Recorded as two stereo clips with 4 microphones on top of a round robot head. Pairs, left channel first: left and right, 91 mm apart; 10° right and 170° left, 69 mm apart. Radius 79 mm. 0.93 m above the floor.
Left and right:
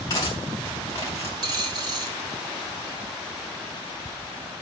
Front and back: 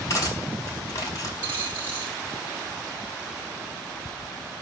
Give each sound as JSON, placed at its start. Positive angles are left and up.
{"t": 0.1, "sound": "cutlery clinking", "azimuth_deg": 30, "distance_m": 5.5}
{"t": 1.4, "sound": "a dropped coin", "azimuth_deg": -120, "distance_m": 1.0}